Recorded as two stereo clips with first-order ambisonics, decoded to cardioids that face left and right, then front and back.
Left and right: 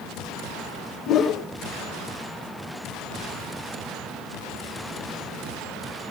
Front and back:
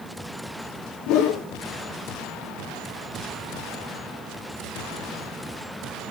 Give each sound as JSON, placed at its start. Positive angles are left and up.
{"t": 1.1, "sound": "a whoosh", "azimuth_deg": 40, "distance_m": 2.0}